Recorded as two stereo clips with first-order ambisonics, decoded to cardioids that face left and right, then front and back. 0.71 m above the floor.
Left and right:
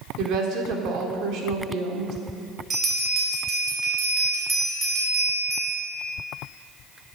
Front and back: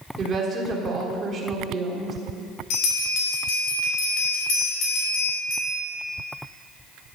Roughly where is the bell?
Ahead.